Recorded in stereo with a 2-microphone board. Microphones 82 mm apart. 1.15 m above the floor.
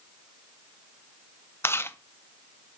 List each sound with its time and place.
1.6 s chewing: 30° left (ahead or behind), 0.5 m